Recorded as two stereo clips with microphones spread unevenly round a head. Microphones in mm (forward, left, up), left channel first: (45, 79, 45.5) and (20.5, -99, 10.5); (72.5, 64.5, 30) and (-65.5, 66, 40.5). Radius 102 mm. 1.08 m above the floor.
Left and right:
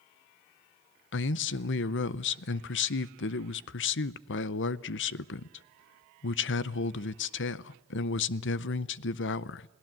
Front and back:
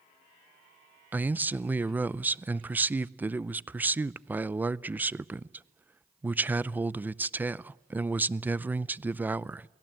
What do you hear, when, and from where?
1.1 s a man speaking: 100° left, 0.6 m